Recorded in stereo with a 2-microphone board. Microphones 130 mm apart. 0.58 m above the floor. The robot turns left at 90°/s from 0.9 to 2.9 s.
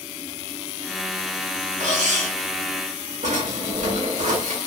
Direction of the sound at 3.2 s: 70° right (ahead or behind).